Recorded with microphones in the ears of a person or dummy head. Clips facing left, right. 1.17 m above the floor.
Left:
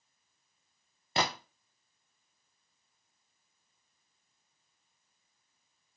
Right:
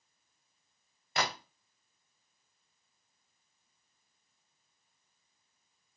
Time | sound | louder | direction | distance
1.2 | a gunshot | left 2 dB | 30° left (ahead or behind) | 0.8 m